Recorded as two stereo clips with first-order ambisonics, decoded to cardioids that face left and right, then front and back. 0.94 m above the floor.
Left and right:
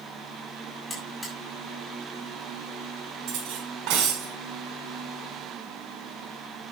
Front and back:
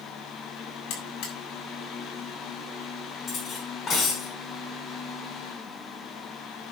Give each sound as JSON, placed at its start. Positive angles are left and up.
{"t": 0.9, "sound": "a buzzer", "azimuth_deg": 5, "distance_m": 7.0}
{"t": 3.3, "sound": "cutlery clinking", "azimuth_deg": -65, "distance_m": 5.0}